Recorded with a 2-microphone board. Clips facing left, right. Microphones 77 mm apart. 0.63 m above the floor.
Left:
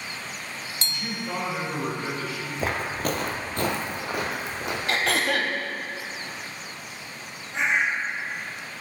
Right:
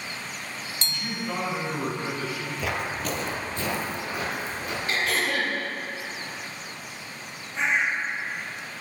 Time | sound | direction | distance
0.8 | a man speaking | 15° left (ahead or behind) | 2.5 m
2.6 | footsteps | 35° left (ahead or behind) | 0.7 m
4.9 | throat clearing | 70° left (ahead or behind) | 0.8 m
7.5 | a bird | 80° left | 2.5 m